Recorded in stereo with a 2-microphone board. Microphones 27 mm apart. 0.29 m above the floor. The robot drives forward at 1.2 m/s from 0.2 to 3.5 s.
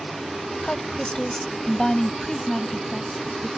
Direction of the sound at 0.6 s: 35° left (ahead or behind).